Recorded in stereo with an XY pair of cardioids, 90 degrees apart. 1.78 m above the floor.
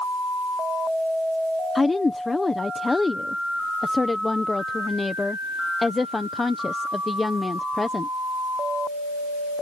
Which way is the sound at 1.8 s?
25° left.